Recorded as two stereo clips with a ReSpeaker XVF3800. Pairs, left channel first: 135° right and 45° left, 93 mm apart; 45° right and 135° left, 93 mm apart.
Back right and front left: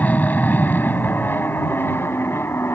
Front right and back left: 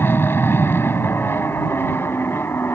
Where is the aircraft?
80° right; by 2.7 s 90° right.